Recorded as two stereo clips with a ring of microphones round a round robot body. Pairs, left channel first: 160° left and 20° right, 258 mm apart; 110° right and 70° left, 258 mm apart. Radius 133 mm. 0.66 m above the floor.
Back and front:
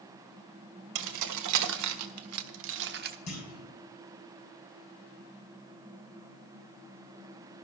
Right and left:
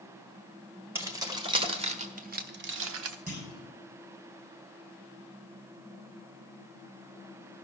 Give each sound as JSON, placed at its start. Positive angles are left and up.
{"t": 0.9, "sound": "keys jangling", "azimuth_deg": -15, "distance_m": 1.7}
{"t": 3.3, "sound": "a clunk", "azimuth_deg": 130, "distance_m": 6.0}